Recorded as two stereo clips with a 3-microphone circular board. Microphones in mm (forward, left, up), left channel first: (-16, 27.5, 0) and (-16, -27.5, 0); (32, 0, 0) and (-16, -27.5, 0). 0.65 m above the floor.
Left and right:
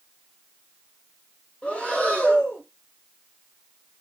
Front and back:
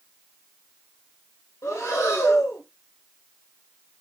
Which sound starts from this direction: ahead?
Breathing, at 1.6 s.